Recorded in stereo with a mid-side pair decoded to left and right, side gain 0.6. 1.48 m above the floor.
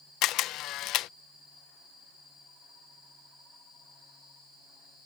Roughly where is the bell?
No bell in this recording.